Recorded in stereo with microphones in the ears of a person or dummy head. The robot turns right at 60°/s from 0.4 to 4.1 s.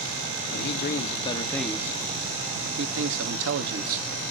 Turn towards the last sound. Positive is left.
turn(degrees=-35)